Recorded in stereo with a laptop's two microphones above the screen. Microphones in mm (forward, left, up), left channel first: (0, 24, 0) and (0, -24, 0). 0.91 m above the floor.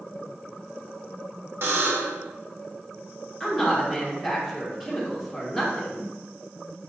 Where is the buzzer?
60° right (ahead or behind), 0.9 m.